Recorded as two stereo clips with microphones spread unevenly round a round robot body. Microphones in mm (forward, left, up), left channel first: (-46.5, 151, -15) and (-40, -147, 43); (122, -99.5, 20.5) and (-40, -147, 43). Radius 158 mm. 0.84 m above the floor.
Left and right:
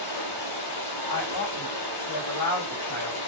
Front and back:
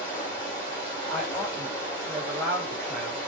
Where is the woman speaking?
105° left, 5 m.